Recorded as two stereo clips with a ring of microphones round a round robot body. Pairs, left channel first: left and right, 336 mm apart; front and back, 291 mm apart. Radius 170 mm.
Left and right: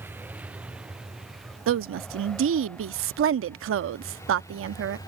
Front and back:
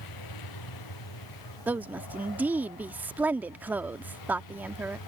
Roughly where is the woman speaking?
Right.